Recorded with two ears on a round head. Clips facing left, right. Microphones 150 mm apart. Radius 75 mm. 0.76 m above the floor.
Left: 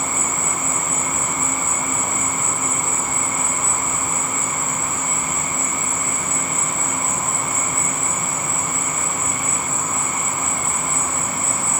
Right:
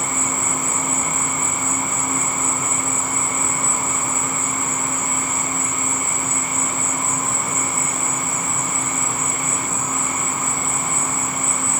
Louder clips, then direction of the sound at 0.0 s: Even; 15° left (ahead or behind).